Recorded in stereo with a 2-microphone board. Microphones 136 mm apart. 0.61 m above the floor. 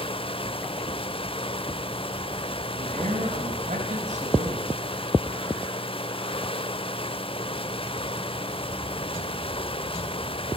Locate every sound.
0.0 s running water: 45° left (ahead or behind), 0.8 m
2.7 s a man speaking: 65° right (ahead or behind), 5.5 m